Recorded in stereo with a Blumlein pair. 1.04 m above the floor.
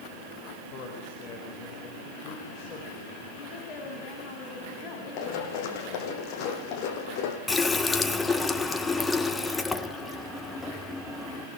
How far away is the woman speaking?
About 6.5 m.